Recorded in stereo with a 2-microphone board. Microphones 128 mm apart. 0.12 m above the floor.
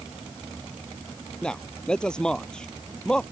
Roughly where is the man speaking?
Centre.